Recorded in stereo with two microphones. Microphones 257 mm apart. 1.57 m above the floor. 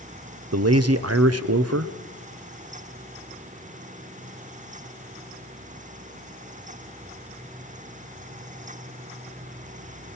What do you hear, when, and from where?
0.5 s a man speaking: 70° right (ahead or behind), 0.8 m